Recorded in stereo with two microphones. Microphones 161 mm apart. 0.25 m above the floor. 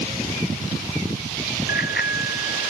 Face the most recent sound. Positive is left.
turn(degrees=85)